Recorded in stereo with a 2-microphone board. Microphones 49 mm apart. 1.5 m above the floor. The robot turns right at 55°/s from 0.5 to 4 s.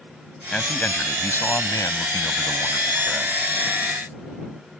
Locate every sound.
0.5 s a man speaking: 15° left; by 3.5 s straight behind